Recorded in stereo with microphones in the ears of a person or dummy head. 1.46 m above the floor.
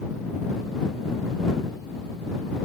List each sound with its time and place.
Only background noise.